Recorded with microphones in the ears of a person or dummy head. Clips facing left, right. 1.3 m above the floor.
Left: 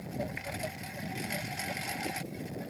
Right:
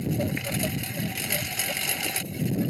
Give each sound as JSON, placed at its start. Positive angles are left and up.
{"t": 0.0, "sound": "a lawn mower", "side_deg": -55}